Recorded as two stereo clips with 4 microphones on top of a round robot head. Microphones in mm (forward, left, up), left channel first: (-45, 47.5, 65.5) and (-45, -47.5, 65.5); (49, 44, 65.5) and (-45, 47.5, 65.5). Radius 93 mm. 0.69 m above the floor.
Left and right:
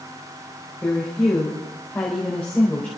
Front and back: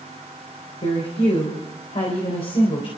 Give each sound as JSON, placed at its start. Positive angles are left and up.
{"t": 0.8, "sound": "a woman speaking", "azimuth_deg": 15, "distance_m": 4.0}